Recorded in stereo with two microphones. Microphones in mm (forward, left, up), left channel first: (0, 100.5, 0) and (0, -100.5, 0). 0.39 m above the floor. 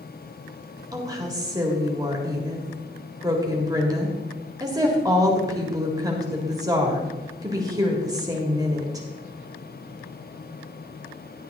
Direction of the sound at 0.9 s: 20° right (ahead or behind).